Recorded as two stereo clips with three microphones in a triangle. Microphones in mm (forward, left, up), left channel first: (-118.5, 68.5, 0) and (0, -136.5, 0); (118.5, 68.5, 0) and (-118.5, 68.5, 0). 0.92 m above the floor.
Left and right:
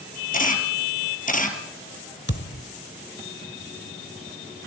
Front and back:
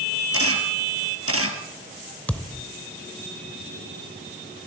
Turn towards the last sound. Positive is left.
turn(degrees=85)